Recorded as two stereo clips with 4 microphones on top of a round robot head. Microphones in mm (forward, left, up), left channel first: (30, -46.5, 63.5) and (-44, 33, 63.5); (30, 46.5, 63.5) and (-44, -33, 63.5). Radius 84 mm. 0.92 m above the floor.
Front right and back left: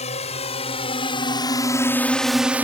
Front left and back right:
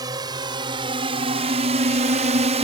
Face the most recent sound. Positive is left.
turn(degrees=-155)